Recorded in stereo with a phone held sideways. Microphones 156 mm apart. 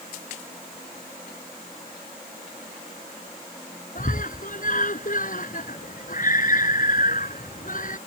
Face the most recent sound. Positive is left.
turn(degrees=60)  # may be behind; listen again after turning